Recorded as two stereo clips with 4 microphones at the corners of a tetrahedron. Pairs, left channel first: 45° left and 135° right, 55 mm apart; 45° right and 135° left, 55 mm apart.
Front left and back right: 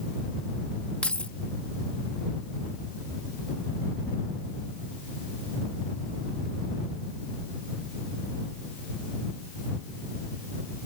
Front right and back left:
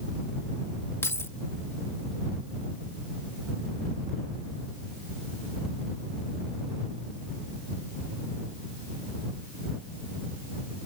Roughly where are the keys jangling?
Ahead.